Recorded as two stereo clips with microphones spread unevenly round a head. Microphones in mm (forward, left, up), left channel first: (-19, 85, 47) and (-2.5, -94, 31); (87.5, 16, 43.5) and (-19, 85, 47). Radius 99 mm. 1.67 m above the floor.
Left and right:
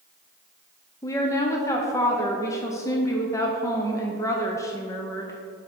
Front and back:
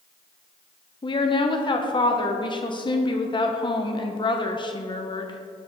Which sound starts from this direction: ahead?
A woman speaking, at 1.0 s.